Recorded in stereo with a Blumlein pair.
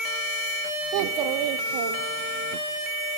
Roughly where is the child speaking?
Ahead right.